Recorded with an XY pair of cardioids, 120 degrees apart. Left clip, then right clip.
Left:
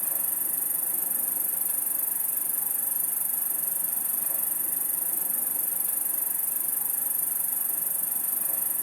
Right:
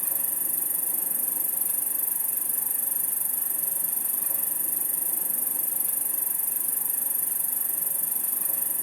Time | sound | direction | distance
0.0 | an insect | straight ahead | 1.1 m